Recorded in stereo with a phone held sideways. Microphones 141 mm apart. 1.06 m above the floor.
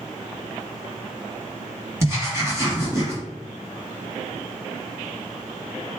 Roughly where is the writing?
Right.